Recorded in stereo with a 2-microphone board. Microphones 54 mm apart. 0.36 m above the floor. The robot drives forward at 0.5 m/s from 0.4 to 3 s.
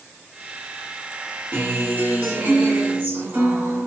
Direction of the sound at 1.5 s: 35° right (ahead or behind).